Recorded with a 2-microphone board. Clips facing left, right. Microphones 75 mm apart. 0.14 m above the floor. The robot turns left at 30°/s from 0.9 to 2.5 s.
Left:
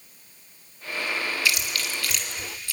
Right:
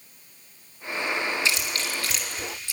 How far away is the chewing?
About 1.8 m.